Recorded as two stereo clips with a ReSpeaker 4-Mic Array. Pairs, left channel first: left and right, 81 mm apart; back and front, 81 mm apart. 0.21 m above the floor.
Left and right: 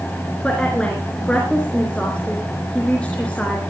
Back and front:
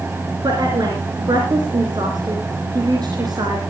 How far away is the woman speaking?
About 3.5 m.